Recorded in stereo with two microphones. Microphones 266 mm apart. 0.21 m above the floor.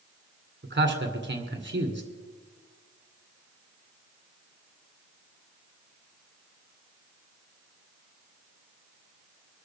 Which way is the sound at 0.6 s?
45° right (ahead or behind).